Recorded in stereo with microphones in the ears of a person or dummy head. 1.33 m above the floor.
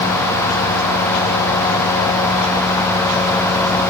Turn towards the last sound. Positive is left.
No sound to turn to.